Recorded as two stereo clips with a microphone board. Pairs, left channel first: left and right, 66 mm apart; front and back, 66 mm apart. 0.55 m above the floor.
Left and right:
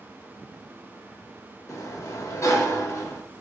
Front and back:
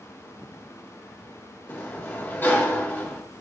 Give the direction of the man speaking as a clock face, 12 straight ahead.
No man speaking in this recording.